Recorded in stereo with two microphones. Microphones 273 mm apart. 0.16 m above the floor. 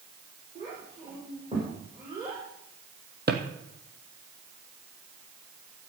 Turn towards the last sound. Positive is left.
turn(degrees=-35)  # may be behind; listen again after turning